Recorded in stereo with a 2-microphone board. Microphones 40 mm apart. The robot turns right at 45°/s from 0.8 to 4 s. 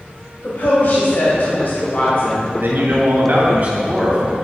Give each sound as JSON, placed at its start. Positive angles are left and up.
{"t": 0.4, "sound": "a woman speaking", "azimuth_deg": 70, "distance_m": 2.5}
{"t": 2.6, "sound": "a man speaking", "azimuth_deg": -100, "distance_m": 2.0}